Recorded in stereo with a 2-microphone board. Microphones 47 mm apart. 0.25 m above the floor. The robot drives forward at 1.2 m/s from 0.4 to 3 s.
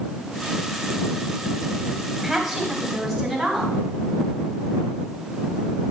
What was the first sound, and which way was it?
A woman speaking, 5° right (ahead or behind).